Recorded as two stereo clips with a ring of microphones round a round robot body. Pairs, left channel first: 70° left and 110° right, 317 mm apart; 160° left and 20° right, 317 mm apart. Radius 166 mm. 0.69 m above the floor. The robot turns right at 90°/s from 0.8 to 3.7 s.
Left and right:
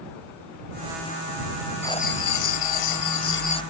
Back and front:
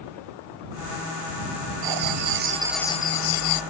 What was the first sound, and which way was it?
Writing, 15° right.